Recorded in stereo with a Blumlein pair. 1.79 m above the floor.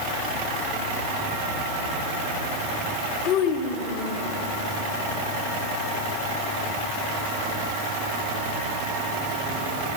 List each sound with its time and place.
3.2 s a child speaking: 35° left, 3 m